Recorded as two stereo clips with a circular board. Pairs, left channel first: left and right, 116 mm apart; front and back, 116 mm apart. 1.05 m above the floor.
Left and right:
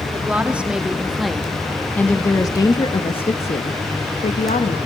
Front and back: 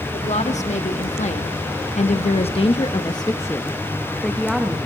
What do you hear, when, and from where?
0.1 s a woman speaking: 15° right, 1.7 m; by 4.8 s 95° left, 1.3 m